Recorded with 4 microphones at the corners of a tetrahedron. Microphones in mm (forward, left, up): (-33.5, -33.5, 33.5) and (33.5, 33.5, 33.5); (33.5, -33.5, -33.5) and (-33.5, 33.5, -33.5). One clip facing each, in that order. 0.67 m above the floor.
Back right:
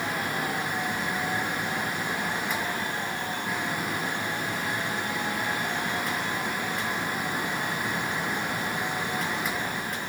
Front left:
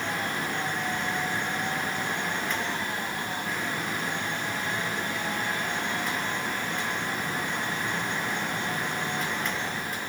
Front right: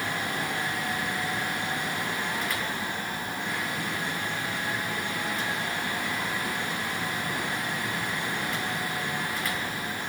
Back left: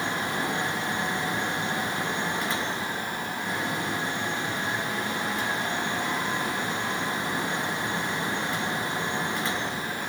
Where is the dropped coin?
No dropped coin in this recording.